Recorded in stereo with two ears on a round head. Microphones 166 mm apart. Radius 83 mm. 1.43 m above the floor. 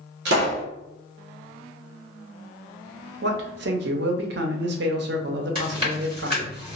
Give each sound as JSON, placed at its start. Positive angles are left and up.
{"t": 0.2, "sound": "a pop", "side_deg": -60, "distance_m": 1.2}
{"t": 3.2, "sound": "a man speaking", "side_deg": -60, "distance_m": 0.6}
{"t": 5.5, "sound": "chewing", "side_deg": -30, "distance_m": 1.9}